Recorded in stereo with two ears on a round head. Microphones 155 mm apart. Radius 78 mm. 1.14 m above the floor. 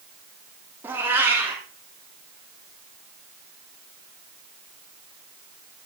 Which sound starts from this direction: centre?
A cat meowing, at 0.8 s.